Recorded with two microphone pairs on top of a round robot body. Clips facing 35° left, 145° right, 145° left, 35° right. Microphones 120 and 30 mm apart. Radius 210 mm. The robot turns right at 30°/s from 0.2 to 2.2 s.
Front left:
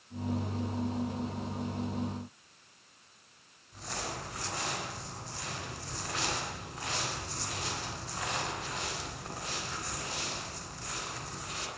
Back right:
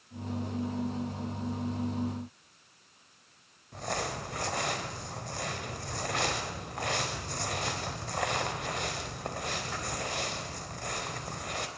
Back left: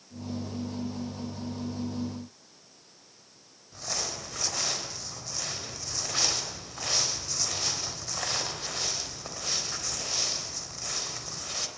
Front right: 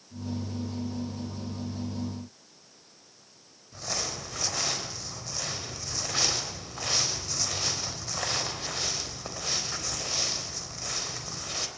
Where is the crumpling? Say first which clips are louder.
Back right 5 dB, front right 1 dB; 120° right, 4 m.